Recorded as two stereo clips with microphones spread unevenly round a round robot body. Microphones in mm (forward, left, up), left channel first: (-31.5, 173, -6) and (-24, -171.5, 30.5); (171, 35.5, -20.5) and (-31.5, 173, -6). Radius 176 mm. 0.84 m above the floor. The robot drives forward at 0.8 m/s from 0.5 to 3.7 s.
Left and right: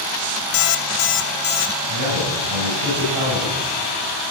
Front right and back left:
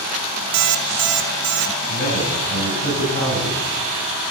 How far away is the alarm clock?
About 0.9 m.